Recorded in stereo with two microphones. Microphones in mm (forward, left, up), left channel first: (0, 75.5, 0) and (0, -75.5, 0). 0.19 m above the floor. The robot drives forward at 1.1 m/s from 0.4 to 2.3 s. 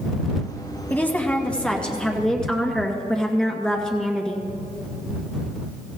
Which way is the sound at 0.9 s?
10° left (ahead or behind).